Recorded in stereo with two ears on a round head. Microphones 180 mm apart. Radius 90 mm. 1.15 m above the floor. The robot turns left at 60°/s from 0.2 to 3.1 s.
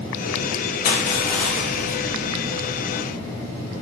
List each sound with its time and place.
0.8 s crushing: 45° left, 1.6 m; by 2.0 s 25° right, 1.6 m